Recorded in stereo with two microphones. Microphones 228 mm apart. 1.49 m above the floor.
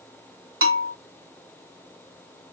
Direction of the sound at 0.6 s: 70° right (ahead or behind).